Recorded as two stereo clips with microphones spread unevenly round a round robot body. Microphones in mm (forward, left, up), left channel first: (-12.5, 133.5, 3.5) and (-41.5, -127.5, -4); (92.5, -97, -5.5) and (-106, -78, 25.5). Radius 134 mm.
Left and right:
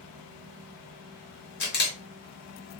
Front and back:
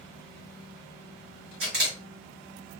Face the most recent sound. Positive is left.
turn(degrees=120)